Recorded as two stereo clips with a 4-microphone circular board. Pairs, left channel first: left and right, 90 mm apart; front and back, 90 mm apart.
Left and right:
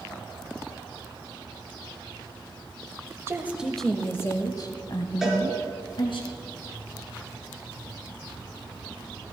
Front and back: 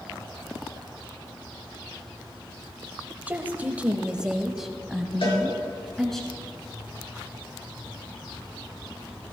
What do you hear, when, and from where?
3.3 s a woman speaking: 125° right, 1.0 m; by 6.2 s 85° left, 3 m
5.2 s a cowbell: 5° right, 4.5 m